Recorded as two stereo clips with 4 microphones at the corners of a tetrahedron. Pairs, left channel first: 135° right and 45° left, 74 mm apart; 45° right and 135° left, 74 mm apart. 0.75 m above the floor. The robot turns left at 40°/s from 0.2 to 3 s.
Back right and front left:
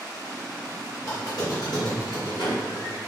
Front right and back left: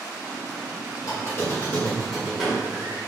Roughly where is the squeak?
Right.